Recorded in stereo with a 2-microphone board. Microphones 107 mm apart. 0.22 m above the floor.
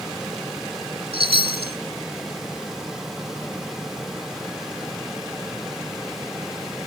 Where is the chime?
65° right (ahead or behind), 0.6 m.